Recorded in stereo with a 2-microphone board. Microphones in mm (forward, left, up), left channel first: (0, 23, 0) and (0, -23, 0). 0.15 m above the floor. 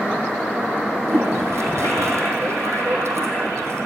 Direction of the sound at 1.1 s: 80° right.